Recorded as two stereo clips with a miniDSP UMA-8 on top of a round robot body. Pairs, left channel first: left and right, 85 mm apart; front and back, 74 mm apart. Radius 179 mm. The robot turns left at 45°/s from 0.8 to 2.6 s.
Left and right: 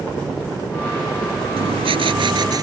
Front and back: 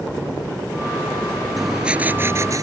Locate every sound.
1.6 s writing: 90° right; by 2.6 s 135° right